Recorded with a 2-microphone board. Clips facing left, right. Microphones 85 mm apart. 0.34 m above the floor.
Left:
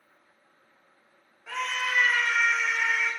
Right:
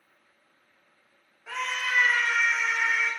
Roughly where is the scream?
Centre.